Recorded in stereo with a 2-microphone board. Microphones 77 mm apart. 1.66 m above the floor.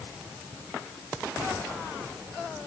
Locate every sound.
Only background noise.